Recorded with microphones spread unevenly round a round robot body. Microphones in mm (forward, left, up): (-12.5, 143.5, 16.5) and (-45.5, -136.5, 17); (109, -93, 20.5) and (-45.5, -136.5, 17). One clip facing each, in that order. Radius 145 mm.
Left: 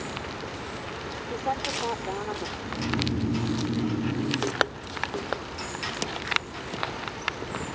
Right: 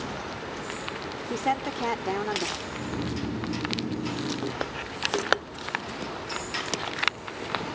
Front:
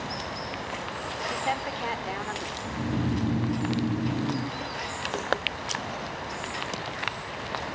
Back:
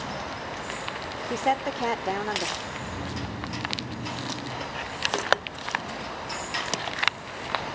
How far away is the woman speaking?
About 1.5 m.